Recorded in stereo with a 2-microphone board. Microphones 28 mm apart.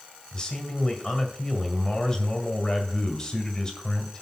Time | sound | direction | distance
0.3 | a man speaking | 30° left (ahead or behind) | 1.9 m